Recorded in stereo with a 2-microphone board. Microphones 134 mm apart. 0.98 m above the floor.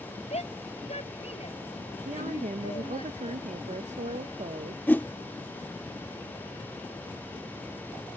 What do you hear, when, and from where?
0.3 s a shout: 55° left (ahead or behind); by 3.0 s 45° left (ahead or behind)
2.0 s a woman speaking: 65° right (ahead or behind)
4.9 s a whoosh: 15° left (ahead or behind)